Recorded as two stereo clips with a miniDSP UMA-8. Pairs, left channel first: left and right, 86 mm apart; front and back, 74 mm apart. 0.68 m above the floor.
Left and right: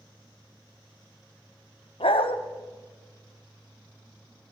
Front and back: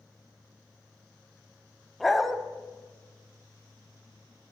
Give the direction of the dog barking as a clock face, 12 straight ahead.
9 o'clock.